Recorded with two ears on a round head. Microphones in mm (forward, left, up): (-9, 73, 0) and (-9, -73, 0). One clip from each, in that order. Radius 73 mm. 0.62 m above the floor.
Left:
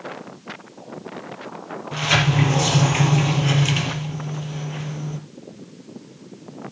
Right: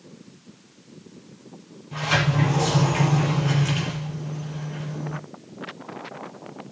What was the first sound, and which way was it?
A sliding door, 45° left (ahead or behind).